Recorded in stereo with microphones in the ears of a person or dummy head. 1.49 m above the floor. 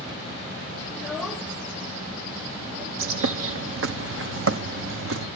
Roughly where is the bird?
Right.